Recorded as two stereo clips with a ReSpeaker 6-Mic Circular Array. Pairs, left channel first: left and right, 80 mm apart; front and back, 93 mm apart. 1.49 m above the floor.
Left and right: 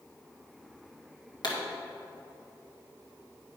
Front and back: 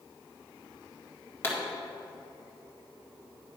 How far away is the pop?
About 1.8 m.